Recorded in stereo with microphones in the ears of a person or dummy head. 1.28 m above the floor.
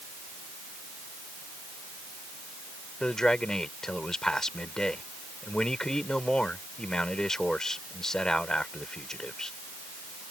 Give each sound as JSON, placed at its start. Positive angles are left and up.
{"t": 3.0, "sound": "a man speaking", "side_deg": 0}